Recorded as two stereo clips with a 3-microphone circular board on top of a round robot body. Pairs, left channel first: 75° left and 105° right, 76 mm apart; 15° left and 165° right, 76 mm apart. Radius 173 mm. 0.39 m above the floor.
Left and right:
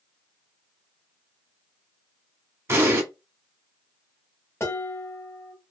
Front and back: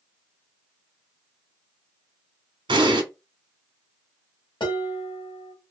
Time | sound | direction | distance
2.7 | an explosion | 160° right | 1.0 m
4.6 | dishes clattering | 20° left | 1.2 m